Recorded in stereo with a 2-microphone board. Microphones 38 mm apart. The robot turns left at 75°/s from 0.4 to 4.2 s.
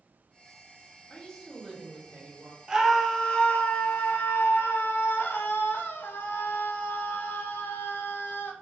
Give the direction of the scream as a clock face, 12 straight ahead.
5 o'clock.